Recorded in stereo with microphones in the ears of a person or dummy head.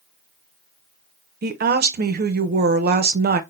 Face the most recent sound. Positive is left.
turn(degrees=-45)  # may be behind; listen again after turning